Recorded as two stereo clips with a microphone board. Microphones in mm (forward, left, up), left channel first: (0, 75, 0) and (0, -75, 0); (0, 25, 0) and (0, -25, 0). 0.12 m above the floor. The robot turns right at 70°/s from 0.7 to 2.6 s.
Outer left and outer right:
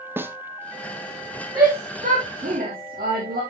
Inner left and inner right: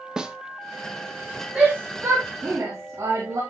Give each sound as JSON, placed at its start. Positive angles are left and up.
{"t": 0.2, "sound": "a snare drum", "side_deg": -15, "distance_m": 0.9}
{"t": 1.6, "sound": "a shout", "side_deg": -30, "distance_m": 5.0}